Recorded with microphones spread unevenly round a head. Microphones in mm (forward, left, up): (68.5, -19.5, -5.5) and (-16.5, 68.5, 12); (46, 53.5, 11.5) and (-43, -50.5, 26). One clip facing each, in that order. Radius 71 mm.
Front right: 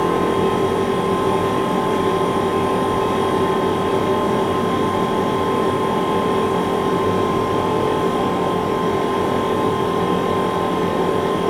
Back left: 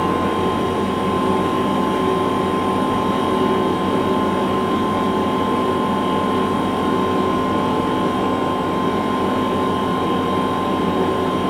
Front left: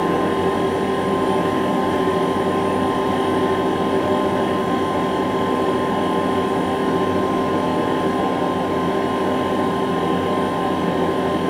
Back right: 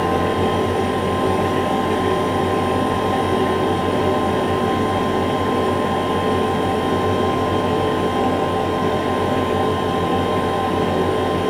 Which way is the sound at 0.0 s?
65° right.